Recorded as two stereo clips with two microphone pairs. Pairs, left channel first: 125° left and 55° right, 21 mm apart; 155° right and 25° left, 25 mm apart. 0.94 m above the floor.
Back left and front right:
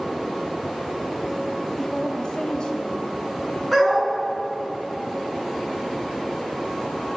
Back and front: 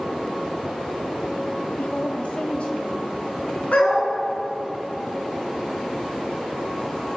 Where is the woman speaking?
165° right, 1.8 m; by 3.6 s 155° left, 3 m.